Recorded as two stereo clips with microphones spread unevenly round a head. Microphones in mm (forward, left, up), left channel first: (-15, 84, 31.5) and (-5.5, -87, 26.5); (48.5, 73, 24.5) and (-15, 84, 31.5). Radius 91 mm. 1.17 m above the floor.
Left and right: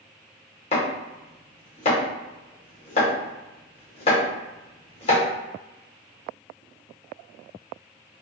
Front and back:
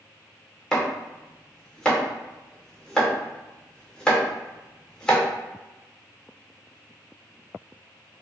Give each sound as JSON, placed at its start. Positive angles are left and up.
{"t": 0.7, "sound": "chopping", "azimuth_deg": 75, "distance_m": 0.9}